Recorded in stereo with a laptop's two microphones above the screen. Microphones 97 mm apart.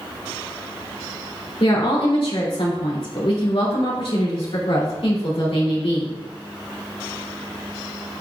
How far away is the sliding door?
I don't hear a sliding door.